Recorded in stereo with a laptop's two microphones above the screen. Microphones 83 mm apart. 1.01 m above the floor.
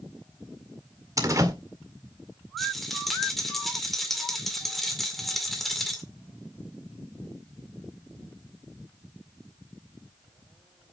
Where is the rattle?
5° left (ahead or behind), 2 m.